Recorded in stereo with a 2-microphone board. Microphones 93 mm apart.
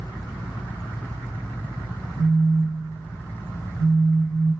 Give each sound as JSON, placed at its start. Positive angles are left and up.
{"t": 2.2, "sound": "a phone buzzing", "side_deg": 50, "distance_m": 2.5}